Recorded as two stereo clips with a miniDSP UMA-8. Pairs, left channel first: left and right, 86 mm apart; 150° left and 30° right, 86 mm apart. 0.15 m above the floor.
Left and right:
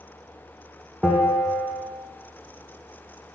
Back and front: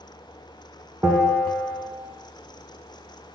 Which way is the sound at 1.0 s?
5° right.